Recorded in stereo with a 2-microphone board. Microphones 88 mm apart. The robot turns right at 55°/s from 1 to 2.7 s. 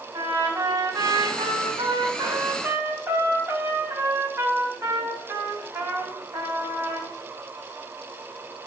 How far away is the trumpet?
About 2 m.